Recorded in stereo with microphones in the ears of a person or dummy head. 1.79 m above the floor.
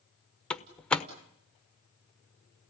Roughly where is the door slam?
Centre.